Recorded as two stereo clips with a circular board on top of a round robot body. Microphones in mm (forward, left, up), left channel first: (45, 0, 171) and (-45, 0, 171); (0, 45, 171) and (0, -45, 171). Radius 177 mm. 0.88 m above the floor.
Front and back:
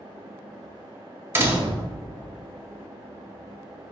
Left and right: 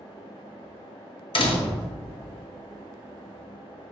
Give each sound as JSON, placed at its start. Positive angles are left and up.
{"t": 1.4, "sound": "a door slam", "azimuth_deg": 115, "distance_m": 1.3}